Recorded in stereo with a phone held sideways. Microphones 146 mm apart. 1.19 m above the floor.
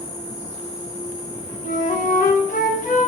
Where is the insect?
55° left (ahead or behind), 4 m.